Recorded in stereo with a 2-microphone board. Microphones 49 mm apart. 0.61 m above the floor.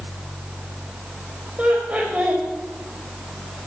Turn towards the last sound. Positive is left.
turn(degrees=-30)  # may be behind; listen again after turning